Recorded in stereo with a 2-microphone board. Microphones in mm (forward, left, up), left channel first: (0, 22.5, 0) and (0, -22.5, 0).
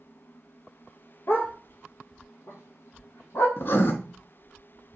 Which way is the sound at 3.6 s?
60° left (ahead or behind).